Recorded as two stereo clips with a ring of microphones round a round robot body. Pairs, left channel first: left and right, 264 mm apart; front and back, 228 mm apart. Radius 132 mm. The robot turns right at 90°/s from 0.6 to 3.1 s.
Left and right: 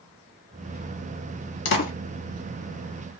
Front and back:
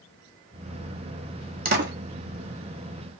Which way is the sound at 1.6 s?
130° left.